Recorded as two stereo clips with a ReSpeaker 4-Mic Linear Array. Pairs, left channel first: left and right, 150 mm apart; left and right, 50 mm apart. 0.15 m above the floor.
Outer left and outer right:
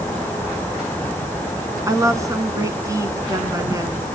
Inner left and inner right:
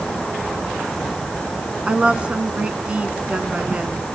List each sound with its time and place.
1.9 s a woman speaking: 25° right (ahead or behind), 1.1 m